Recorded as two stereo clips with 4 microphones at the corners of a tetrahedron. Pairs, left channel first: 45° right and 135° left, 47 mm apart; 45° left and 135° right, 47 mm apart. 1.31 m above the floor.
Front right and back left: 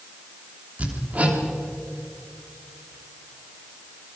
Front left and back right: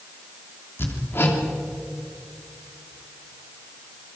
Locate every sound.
0.8 s hammering: 75° left, 3 m